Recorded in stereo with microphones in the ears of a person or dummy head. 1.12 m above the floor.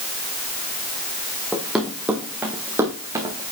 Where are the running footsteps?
5° left (ahead or behind), 3 m; by 3.5 s 15° right (ahead or behind), 3 m.